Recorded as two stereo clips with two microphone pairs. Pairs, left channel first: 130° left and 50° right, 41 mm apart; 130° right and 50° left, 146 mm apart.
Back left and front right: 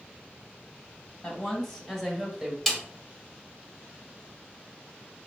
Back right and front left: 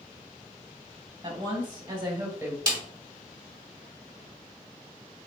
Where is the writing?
I don't hear writing.